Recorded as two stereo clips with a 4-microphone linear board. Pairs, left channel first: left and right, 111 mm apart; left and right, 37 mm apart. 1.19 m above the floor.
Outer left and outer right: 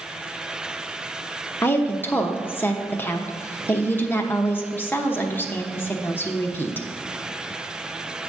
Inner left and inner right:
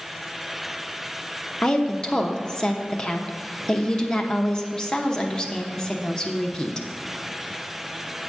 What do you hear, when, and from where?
1.6 s a woman speaking: 20° left (ahead or behind), 0.8 m